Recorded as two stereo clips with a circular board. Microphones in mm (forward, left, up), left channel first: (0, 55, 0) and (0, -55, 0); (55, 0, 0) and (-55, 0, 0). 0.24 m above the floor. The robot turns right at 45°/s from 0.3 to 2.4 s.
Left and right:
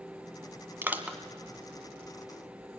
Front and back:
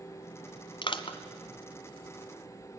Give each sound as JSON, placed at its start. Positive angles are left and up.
{"t": 0.8, "sound": "crushing", "azimuth_deg": -25, "distance_m": 1.5}